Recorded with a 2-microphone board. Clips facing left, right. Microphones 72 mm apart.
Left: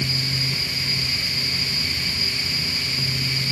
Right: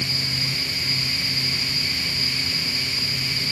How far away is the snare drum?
No snare drum in this recording.